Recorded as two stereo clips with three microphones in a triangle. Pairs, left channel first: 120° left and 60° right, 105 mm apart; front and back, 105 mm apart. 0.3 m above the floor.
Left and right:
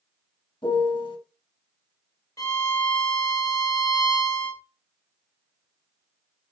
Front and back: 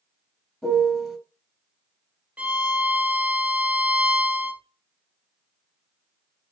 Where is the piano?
80° left, 1.1 m.